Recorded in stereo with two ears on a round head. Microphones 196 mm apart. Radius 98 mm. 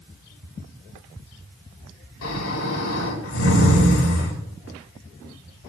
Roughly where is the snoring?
Left.